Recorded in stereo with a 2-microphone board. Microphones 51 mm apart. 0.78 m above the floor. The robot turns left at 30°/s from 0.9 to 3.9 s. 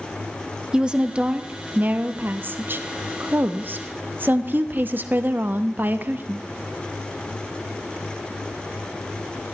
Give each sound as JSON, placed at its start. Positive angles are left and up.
{"t": 0.7, "sound": "a woman speaking", "azimuth_deg": -25, "distance_m": 0.7}